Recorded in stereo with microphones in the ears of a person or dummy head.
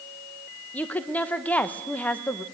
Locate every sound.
0.7 s a woman speaking: 10° left (ahead or behind), 1.0 m